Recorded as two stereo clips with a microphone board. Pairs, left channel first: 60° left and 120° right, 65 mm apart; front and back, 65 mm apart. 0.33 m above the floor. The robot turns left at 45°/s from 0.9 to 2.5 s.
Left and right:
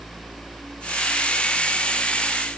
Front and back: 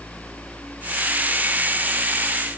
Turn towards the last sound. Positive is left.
No sound to turn to.